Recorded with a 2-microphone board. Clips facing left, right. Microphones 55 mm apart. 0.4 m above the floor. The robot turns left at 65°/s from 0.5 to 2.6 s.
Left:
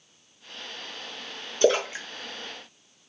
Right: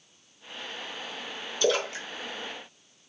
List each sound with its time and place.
1.6 s a splash: 35° left (ahead or behind), 0.7 m; by 2.1 s 15° left (ahead or behind), 0.7 m